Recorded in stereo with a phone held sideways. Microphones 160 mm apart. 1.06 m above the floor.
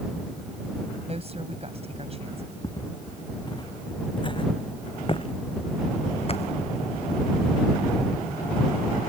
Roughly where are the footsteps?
Left.